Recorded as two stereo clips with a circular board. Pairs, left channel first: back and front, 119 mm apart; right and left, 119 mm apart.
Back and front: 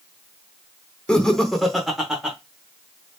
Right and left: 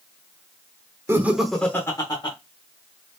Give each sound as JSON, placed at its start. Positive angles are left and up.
{"t": 1.1, "sound": "laughter", "azimuth_deg": 110, "distance_m": 0.7}